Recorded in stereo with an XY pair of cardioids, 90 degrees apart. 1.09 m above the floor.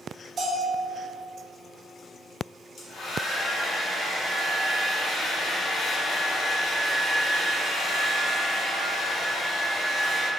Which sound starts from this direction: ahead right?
A bell, at 0.4 s.